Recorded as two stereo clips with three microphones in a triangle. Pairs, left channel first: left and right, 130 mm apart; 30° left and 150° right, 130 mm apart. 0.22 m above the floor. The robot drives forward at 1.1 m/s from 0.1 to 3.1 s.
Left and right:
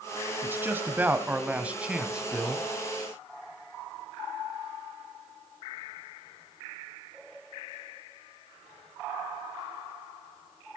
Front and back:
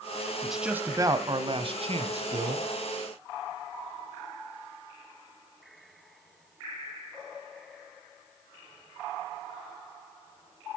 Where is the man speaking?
55° right, 1.1 m; by 2.7 s 175° right, 2.5 m.